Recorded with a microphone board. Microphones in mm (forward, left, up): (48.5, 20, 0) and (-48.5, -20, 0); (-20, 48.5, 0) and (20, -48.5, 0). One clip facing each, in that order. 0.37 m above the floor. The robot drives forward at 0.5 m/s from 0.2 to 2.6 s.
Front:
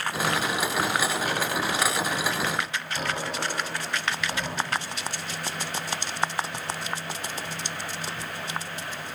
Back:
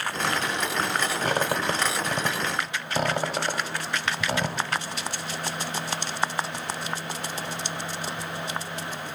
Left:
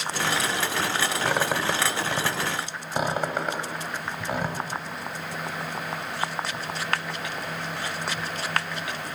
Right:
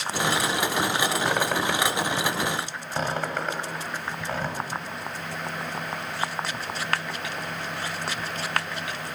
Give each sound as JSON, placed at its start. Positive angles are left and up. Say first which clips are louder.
{"t": 1.2, "sound": "a squeak", "louder": "back 2 dB, even", "azimuth_deg": -165, "distance_m": 0.6}